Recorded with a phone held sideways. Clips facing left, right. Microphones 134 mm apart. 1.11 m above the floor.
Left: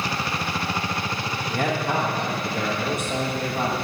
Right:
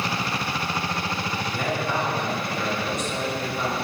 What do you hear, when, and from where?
1.5 s a man speaking: 55° left (ahead or behind), 1.8 m